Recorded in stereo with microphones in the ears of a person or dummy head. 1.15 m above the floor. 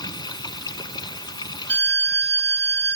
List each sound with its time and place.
0.0 s running water: 25° left (ahead or behind)
1.7 s a violin: 15° left (ahead or behind)